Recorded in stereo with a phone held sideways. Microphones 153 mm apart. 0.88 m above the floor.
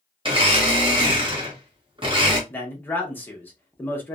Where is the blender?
35° right (ahead or behind), 0.8 m.